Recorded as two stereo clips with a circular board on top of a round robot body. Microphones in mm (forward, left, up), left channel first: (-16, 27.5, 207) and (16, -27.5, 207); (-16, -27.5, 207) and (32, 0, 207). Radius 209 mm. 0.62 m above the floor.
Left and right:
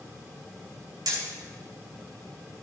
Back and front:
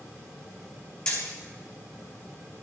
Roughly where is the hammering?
Right.